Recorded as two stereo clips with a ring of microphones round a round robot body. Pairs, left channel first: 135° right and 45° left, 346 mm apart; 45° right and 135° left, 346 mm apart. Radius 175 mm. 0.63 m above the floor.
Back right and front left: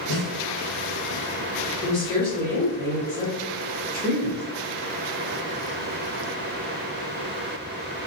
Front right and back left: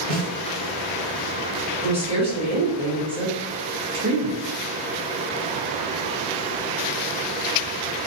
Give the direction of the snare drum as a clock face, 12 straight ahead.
6 o'clock.